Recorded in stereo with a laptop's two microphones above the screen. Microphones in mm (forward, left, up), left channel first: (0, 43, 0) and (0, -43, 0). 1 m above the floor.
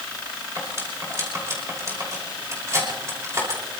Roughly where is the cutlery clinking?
Right.